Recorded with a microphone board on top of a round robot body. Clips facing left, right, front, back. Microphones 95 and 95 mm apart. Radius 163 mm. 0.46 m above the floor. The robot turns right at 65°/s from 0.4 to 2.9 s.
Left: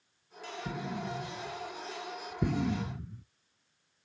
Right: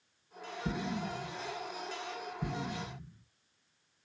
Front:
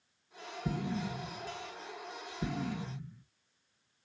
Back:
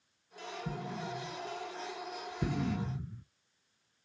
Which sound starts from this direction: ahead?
An explosion, at 0.7 s.